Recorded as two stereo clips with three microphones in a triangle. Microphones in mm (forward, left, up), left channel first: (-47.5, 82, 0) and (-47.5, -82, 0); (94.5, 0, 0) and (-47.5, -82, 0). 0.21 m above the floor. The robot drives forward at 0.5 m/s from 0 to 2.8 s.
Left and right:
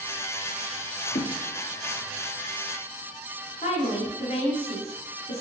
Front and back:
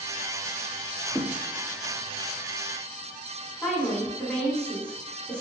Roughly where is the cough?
No cough in this recording.